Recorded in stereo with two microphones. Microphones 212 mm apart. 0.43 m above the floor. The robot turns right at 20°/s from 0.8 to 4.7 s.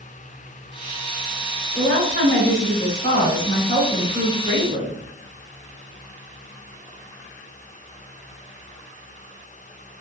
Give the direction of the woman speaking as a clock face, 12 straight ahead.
10 o'clock.